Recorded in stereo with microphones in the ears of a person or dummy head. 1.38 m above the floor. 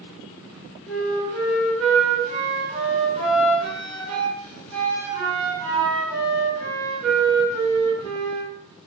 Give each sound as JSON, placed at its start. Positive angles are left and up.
{"t": 0.9, "sound": "a flute", "side_deg": 5, "distance_m": 1.2}